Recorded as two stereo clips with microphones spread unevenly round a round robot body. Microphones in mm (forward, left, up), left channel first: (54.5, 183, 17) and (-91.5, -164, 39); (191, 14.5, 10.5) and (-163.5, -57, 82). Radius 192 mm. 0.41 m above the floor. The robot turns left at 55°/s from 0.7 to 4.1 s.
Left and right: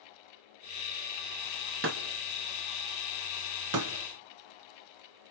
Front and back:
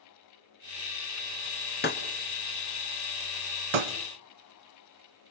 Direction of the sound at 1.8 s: 50° right.